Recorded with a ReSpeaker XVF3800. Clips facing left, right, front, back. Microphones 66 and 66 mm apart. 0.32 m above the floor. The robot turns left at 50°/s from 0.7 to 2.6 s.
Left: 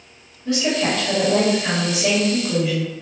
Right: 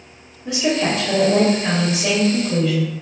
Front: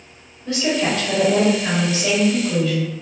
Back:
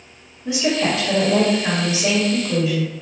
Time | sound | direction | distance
0.5 | a woman speaking | 125° right | 1.4 m